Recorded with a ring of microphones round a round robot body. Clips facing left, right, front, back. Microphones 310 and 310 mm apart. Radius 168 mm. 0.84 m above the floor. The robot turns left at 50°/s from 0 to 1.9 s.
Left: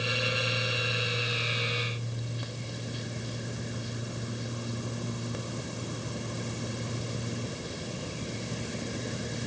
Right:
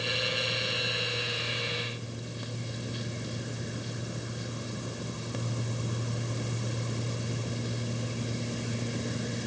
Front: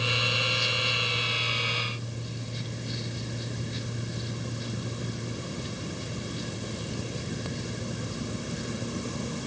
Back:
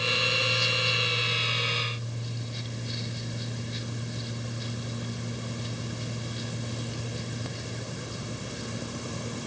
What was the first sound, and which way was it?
Only background noise.